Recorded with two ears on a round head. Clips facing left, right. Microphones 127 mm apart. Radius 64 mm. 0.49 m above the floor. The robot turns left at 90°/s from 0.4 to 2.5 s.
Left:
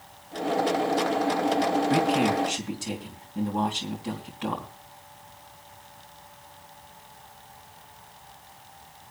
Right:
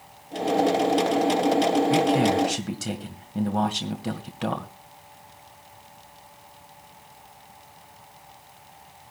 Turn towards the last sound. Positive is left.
turn(degrees=-70)